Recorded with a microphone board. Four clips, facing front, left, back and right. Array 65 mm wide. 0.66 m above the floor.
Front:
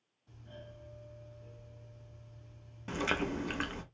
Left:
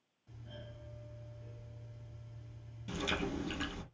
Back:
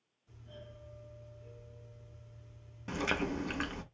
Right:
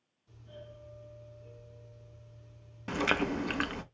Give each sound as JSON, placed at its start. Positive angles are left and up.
{"t": 0.3, "sound": "a doorbell", "azimuth_deg": 55, "distance_m": 3.0}
{"t": 2.9, "sound": "chewing", "azimuth_deg": -85, "distance_m": 0.5}